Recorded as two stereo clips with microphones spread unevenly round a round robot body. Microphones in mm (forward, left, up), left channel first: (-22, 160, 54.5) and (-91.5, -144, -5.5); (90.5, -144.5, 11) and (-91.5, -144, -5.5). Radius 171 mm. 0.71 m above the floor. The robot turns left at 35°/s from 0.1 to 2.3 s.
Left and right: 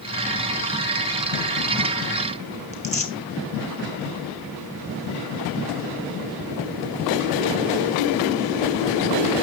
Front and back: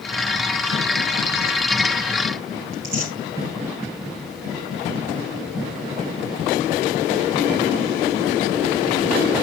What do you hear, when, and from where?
2.7 s tearing paper: 145° left, 3 m